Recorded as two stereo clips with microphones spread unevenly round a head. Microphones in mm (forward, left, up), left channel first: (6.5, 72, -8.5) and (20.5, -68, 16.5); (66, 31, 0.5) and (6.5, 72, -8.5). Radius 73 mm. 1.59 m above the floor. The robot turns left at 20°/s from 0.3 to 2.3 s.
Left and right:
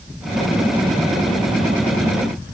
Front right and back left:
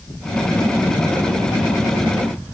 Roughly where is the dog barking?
I don't hear a dog barking.